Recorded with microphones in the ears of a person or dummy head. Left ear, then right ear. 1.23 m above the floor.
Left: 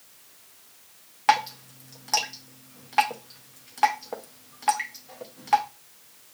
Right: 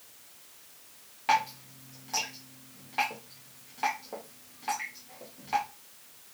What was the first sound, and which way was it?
Dripping, 45° left (ahead or behind).